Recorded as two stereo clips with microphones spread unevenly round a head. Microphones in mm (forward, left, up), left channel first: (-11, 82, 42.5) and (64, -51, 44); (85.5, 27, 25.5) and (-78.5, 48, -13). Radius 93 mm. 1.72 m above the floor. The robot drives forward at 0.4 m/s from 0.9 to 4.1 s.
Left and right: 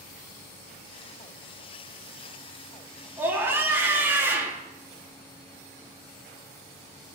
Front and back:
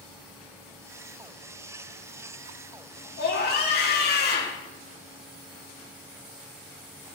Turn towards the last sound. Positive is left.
turn(degrees=15)